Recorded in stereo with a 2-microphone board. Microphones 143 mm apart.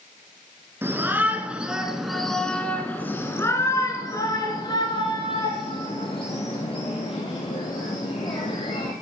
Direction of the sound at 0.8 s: 15° right (ahead or behind).